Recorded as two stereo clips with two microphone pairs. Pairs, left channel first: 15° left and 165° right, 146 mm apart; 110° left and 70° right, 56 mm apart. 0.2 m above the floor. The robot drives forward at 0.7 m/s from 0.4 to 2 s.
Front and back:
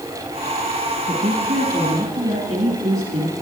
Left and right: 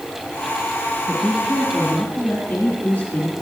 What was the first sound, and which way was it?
A woman speaking, 170° left.